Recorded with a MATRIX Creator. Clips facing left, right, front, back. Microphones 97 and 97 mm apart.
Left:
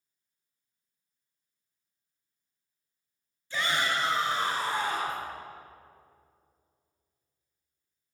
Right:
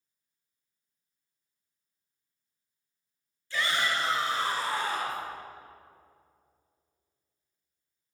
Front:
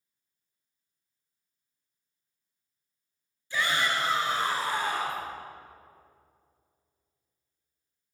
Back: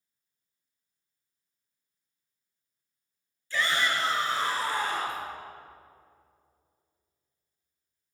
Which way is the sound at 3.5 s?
50° left.